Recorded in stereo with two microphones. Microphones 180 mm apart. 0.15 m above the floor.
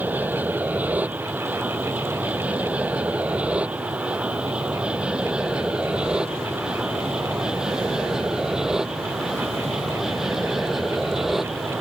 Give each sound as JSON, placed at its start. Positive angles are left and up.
{"t": 0.0, "sound": "an aircraft", "side_deg": -10}